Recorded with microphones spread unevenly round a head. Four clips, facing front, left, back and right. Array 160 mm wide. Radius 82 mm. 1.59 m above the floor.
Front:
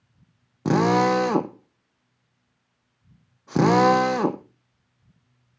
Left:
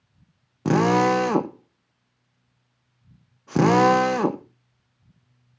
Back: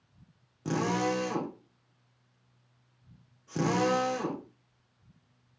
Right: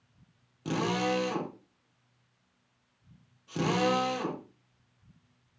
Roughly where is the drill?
Ahead left.